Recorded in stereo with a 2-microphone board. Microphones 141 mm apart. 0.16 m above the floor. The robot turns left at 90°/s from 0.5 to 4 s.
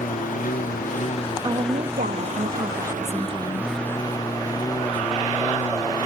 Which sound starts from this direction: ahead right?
A woman speaking, at 1.4 s.